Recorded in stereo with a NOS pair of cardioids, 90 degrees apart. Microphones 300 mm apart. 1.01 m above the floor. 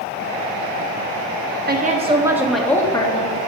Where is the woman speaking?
35° right, 1.5 m; by 3.4 s 20° left, 1.9 m.